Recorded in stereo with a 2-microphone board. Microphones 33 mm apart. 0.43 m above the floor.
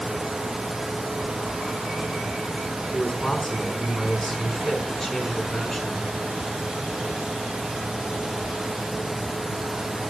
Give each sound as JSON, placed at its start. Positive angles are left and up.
{"t": 2.9, "sound": "a man speaking", "side_deg": 5, "distance_m": 4.5}